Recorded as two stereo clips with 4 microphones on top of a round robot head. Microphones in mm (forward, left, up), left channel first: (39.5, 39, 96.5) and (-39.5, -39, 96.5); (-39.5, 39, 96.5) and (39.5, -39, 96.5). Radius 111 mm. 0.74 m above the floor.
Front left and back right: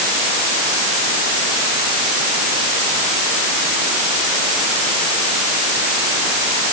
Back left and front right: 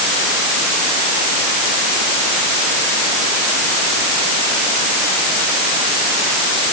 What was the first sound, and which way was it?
Only background noise.